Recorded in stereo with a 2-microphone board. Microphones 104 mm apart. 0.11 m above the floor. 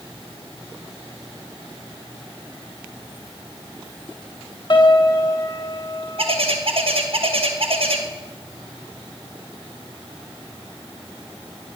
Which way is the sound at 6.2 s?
65° right (ahead or behind).